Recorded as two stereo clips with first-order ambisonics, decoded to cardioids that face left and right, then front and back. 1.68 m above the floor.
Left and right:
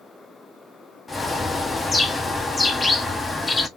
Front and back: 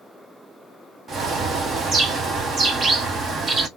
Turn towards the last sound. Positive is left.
turn(degrees=160)